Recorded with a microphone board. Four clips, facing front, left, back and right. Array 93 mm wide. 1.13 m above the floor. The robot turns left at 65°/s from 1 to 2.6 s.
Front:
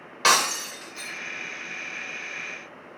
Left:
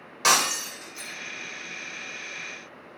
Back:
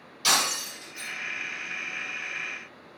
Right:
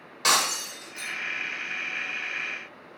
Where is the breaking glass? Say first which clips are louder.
Left 2 dB, front 6 dB; 10° left, 2 m; by 1.1 s straight ahead, 2 m.